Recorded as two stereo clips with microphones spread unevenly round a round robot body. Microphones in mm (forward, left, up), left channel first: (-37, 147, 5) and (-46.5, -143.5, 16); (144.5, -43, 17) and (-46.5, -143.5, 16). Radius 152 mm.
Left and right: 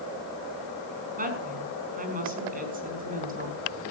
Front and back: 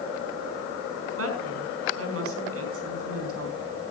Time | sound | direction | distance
1.2 | a woman speaking | 155° right | 4.5 m